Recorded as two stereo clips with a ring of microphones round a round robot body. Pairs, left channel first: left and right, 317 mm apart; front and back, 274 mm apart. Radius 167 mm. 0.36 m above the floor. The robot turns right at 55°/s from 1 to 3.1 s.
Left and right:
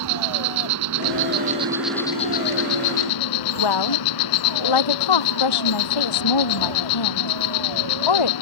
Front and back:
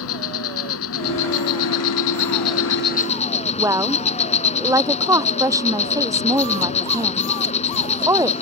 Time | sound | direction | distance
0.0 | an insect | 50° right | ?
3.6 | a woman speaking | 100° left | ?